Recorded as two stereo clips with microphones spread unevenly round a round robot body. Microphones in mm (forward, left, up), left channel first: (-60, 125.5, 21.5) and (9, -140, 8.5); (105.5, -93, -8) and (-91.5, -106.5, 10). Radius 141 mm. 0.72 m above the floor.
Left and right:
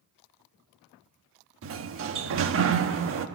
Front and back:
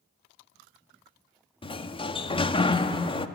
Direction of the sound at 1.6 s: 50° right.